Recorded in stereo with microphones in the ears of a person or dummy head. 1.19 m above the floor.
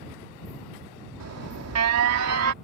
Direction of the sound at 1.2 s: 85° right.